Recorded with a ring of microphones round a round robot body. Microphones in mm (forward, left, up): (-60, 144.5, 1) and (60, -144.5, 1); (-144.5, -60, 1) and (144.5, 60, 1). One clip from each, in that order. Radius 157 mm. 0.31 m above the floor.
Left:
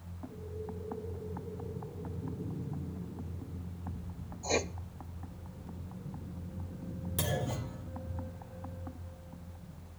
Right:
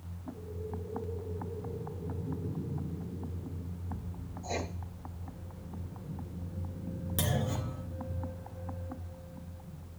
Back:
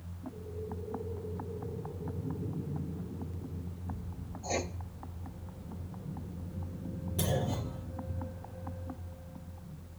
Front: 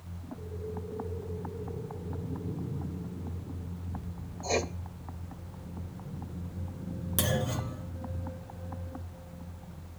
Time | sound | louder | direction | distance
4.4 | writing | left 5 dB, front 5 dB | 80° left | 0.7 m
7.2 | a clunk | right 1 dB, front 3 dB | 20° left | 2.5 m